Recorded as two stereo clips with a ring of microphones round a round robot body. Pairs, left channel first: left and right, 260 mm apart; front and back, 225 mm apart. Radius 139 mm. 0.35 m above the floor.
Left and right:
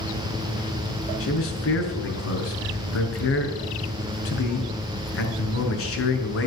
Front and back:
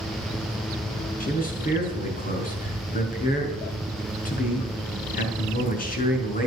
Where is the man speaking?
50° left, 5.5 m.